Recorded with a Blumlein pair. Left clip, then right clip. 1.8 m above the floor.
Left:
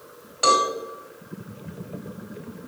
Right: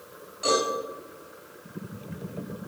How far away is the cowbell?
About 3.5 m.